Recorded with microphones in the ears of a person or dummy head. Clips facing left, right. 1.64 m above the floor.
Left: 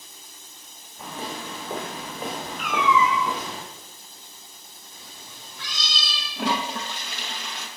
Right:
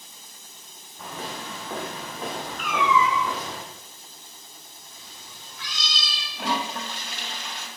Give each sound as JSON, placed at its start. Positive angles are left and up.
{"t": 1.0, "sound": "footsteps", "side_deg": 15, "distance_m": 4.0}
{"t": 2.6, "sound": "a cat meowing", "side_deg": -35, "distance_m": 1.1}
{"t": 4.9, "sound": "a cat meowing", "side_deg": 25, "distance_m": 1.1}
{"t": 6.4, "sound": "a toilet flushing", "side_deg": 60, "distance_m": 1.1}